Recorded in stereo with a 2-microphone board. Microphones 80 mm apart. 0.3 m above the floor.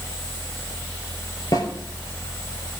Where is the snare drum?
50° left (ahead or behind), 2.5 m.